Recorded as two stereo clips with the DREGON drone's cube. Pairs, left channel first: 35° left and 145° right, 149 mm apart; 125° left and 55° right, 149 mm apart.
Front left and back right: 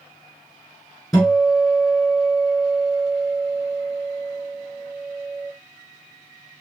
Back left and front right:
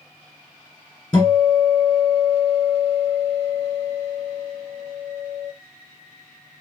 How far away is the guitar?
About 1.9 m.